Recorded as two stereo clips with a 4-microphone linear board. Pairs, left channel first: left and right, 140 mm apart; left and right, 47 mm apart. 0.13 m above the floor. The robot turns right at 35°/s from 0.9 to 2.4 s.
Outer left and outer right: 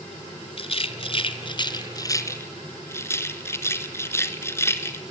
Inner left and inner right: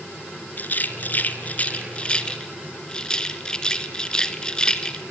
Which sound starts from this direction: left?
A rattle, at 0.6 s.